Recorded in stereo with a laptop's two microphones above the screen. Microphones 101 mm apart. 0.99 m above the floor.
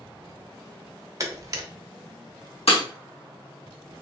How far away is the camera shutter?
About 0.6 m.